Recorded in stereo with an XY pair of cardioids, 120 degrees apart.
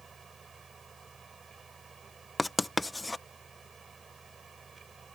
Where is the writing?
10° left.